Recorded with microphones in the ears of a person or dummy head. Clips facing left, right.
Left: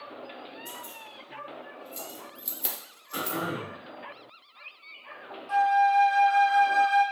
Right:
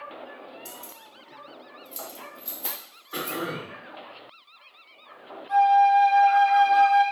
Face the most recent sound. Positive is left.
turn(degrees=55)  # may be behind; listen again after turning